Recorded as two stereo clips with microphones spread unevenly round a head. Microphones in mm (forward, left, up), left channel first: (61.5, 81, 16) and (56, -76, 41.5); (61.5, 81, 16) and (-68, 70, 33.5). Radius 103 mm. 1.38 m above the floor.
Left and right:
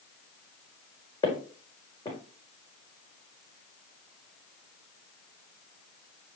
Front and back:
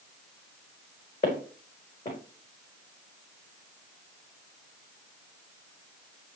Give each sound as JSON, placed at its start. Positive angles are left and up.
{"t": 1.2, "sound": "footsteps", "azimuth_deg": 25, "distance_m": 4.5}